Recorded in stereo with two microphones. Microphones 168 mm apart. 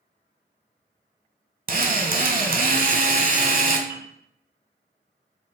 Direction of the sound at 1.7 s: 60° right (ahead or behind).